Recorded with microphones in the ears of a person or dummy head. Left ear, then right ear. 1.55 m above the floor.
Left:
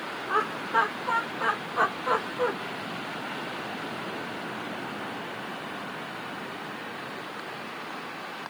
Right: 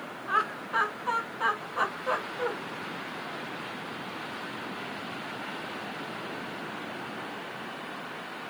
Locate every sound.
0.3 s laughter: 55° right (ahead or behind), 1.4 m; by 2.5 s 20° right (ahead or behind), 2 m